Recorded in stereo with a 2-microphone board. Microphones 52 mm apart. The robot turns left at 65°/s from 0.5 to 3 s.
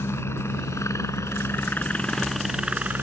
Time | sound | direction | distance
0.0 | a helicopter | 55° left (ahead or behind) | ?